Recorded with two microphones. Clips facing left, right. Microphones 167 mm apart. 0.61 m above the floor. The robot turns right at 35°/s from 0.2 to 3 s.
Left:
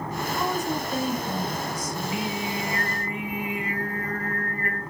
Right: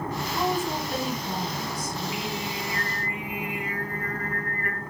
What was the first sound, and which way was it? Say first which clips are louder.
A woman speaking: right 1 dB; 130° right.